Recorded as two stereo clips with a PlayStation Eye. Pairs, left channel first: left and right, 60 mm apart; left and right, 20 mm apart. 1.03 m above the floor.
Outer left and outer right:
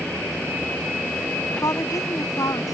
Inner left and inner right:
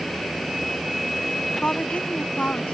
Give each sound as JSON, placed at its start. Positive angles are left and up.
{"t": 1.6, "sound": "a woman speaking", "side_deg": 75}